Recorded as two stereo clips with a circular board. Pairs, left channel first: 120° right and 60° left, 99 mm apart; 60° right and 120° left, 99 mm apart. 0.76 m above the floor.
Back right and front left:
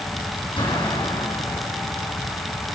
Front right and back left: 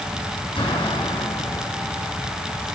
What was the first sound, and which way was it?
An explosion, 90° right.